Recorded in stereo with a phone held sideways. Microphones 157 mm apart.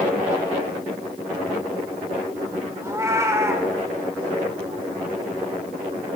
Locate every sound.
2.8 s a cat meowing: 20° right (ahead or behind), 1.1 m